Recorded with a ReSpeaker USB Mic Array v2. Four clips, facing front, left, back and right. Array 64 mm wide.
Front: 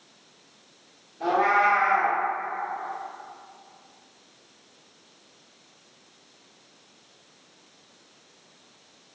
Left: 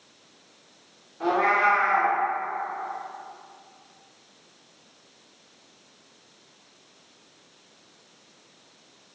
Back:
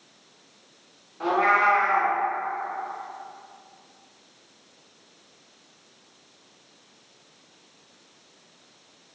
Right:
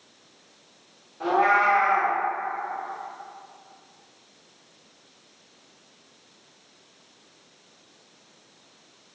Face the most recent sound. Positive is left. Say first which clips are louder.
# right 1 dB, back 1 dB
turn(degrees=-170)